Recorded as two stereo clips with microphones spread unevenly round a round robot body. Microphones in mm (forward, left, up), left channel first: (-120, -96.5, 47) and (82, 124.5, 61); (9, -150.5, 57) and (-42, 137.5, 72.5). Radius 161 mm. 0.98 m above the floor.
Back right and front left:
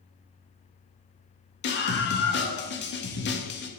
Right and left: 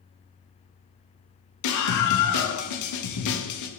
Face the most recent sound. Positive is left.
turn(degrees=-80)